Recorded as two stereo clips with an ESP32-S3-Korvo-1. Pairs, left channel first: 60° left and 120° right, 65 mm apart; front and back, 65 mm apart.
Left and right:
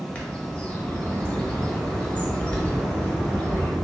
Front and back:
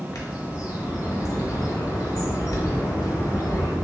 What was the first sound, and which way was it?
A bird, 10° right.